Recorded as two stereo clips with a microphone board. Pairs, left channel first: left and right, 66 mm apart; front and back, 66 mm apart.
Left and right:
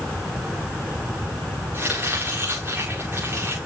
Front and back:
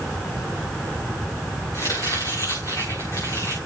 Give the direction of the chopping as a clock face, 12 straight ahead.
1 o'clock.